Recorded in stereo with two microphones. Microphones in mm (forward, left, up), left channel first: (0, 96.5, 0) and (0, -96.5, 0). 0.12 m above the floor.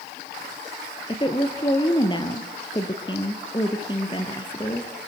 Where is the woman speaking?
25° left (ahead or behind), 2 m.